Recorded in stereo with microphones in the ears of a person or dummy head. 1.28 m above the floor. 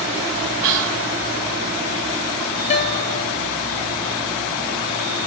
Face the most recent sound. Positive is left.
turn(degrees=35)  # may be behind; listen again after turning